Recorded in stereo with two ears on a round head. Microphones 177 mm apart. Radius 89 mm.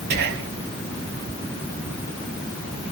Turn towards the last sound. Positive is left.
turn(degrees=-55)  # may be behind; listen again after turning